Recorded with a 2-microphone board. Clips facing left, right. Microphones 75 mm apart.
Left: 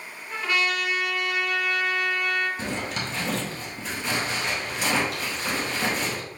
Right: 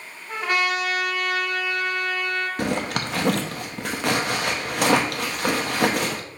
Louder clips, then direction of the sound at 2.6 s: Right 5 dB; 65° right (ahead or behind).